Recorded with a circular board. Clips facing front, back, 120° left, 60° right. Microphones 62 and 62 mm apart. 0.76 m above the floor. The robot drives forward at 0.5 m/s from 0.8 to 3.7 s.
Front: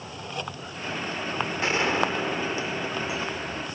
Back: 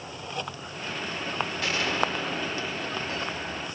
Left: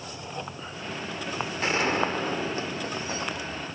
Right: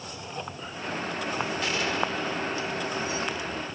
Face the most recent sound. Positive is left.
turn(degrees=90)